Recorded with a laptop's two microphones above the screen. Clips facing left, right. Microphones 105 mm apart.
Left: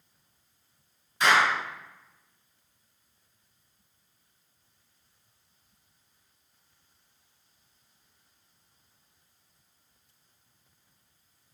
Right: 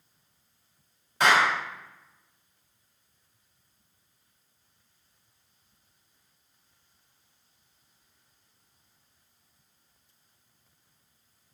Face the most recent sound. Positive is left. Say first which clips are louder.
# right 1 dB
turn(degrees=-65)  # may be behind; listen again after turning